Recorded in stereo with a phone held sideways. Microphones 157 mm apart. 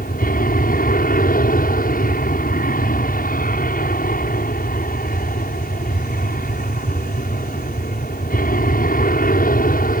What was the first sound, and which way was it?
An aircraft, 65° left (ahead or behind).